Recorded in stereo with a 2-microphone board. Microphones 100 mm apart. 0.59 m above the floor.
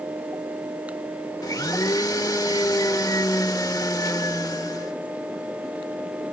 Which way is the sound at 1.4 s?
40° left (ahead or behind).